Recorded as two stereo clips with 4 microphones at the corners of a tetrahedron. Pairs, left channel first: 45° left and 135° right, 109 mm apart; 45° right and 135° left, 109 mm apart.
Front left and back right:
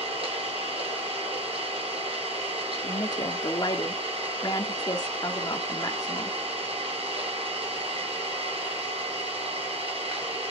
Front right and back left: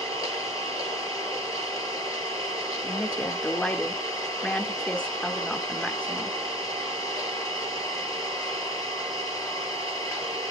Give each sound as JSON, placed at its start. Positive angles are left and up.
{"t": 0.0, "sound": "an engine running", "azimuth_deg": -105, "distance_m": 6.5}
{"t": 2.8, "sound": "a woman speaking", "azimuth_deg": 30, "distance_m": 1.2}